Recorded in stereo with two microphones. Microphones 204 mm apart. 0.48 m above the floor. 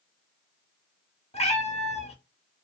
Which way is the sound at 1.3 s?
35° left (ahead or behind).